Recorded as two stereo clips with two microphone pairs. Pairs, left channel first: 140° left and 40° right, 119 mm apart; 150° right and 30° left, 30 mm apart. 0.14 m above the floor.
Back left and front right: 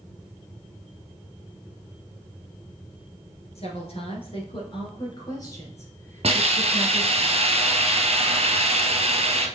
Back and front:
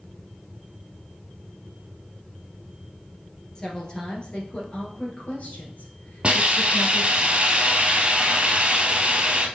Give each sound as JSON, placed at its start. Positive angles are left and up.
{"t": 3.5, "sound": "a woman speaking", "azimuth_deg": 150, "distance_m": 2.0}
{"t": 6.2, "sound": "a hiss", "azimuth_deg": -15, "distance_m": 1.1}